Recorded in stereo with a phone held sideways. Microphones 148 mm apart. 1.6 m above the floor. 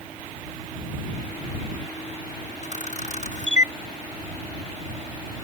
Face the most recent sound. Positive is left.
turn(degrees=55)  # may be behind; listen again after turning